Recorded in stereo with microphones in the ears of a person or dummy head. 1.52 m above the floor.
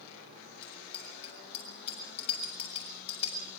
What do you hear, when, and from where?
0.6 s a bicycle bell: 30° left (ahead or behind), 7 m